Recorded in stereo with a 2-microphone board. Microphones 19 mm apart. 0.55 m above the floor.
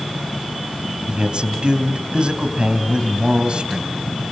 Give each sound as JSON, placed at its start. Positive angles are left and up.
{"t": 1.1, "sound": "a man speaking", "side_deg": -50, "distance_m": 3.0}